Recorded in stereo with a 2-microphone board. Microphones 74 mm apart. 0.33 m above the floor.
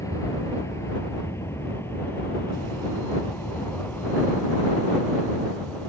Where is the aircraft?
45° left (ahead or behind); by 5.9 s 20° left (ahead or behind).